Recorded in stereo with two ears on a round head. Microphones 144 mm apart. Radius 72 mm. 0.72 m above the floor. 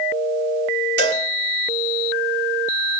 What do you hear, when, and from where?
1.0 s a cowbell: 70° right (ahead or behind), 1.9 m